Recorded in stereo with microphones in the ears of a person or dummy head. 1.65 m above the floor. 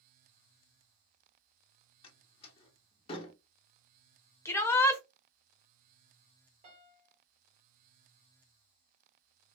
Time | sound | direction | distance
2.0 | a door slam | 30° left (ahead or behind) | 1.1 m
4.5 | a shout | 15° left (ahead or behind) | 0.6 m
6.6 | a piano | 45° right (ahead or behind) | 1.1 m